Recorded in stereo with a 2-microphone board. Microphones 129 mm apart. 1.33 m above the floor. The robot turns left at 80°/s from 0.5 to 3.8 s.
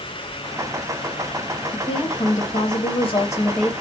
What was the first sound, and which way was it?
A woman speaking, 165° left.